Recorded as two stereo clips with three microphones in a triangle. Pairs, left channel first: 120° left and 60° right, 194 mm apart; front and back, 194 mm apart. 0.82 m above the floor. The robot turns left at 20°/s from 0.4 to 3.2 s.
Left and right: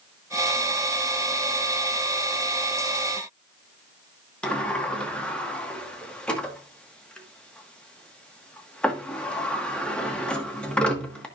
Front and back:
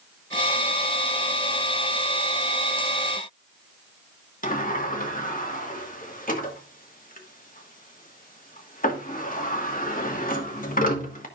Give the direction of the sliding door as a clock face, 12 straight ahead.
11 o'clock.